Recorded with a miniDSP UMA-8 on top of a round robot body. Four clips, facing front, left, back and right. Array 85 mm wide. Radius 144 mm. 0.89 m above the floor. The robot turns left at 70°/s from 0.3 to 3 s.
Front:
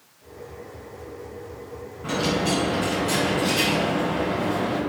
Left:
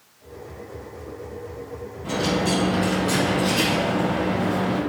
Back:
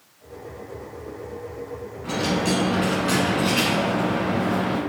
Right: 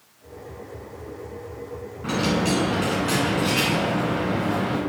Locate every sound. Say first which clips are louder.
2.0 s a dropped coin: even, even; 75° right, 1.3 m; by 4.8 s 140° right, 1.3 m